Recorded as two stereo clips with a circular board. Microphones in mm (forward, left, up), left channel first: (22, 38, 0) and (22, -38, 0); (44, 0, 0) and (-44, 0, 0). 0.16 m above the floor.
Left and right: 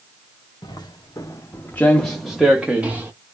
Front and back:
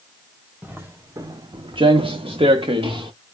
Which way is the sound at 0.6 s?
110° left.